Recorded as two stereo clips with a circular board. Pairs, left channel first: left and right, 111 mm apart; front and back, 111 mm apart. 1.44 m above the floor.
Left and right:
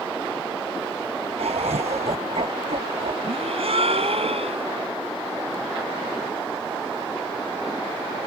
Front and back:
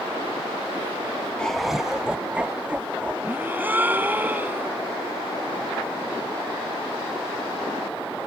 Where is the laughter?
80° right; by 3.1 s 105° right.